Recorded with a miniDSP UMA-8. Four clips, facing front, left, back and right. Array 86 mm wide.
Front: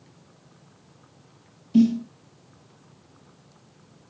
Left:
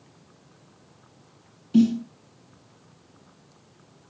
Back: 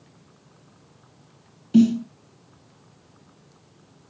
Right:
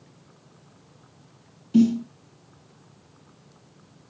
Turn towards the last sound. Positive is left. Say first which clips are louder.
# right 1 dB, back 2 dB
turn(degrees=180)